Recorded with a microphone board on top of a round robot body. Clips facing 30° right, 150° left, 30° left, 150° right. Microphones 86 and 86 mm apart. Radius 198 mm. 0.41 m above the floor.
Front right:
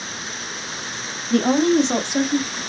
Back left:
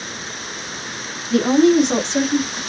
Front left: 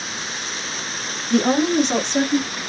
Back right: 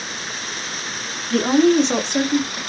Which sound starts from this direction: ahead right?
A woman speaking, at 1.3 s.